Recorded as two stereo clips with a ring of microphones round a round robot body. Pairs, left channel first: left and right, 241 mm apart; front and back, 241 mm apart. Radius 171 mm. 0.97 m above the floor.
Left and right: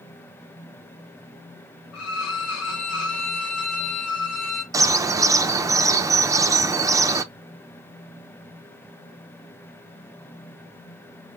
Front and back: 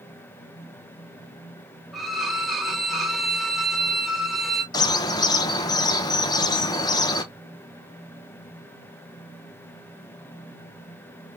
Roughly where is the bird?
Ahead right.